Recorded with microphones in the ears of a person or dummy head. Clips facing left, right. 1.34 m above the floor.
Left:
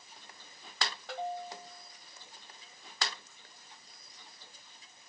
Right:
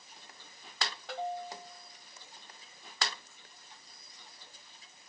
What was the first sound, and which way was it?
Only background noise.